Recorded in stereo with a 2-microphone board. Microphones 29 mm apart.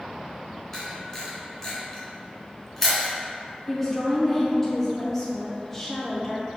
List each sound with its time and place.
0.7 s a camera shutter: 15° left (ahead or behind), 1.8 m
3.7 s a woman speaking: 10° left (ahead or behind), 0.8 m